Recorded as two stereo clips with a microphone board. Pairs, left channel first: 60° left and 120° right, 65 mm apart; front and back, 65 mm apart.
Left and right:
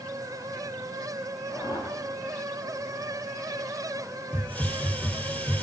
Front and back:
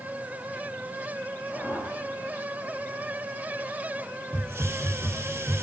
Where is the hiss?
125° left, 1.5 m.